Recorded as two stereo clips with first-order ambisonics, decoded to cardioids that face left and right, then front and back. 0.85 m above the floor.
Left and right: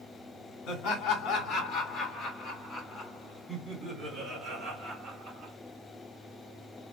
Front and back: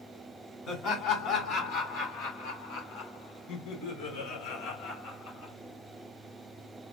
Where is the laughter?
50° left, 2.5 m; by 5.5 s 25° right, 2.5 m.